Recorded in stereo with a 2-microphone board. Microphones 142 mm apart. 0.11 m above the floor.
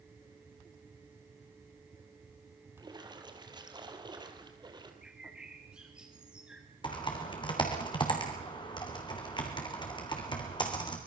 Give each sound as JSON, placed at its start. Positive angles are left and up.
{"t": 2.8, "sound": "a splash", "side_deg": -30, "distance_m": 2.5}
{"t": 5.0, "sound": "a bird", "side_deg": -5, "distance_m": 3.0}
{"t": 6.8, "sound": "typing on a keyboard", "side_deg": 35, "distance_m": 3.0}